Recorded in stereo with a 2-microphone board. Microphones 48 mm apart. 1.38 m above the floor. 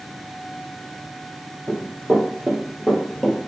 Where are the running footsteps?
45° right (ahead or behind), 1.9 m; by 3.4 s 5° left (ahead or behind), 1.3 m.